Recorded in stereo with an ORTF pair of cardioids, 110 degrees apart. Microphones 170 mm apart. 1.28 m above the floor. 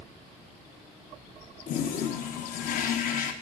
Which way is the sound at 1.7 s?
55° left.